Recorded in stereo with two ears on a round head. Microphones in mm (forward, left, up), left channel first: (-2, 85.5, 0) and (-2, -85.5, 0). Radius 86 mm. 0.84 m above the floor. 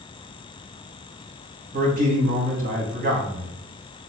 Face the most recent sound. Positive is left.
turn(degrees=-45)  # may be behind; listen again after turning